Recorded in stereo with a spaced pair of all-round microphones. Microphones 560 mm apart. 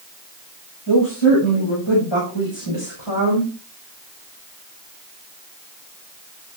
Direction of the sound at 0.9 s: 50° left (ahead or behind).